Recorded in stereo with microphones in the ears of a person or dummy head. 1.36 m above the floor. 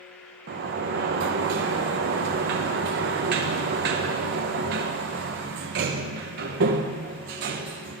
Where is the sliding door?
45° right (ahead or behind), 0.5 m.